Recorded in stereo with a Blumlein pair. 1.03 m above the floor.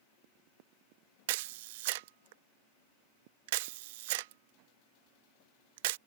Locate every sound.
1.3 s a camera shutter: 50° right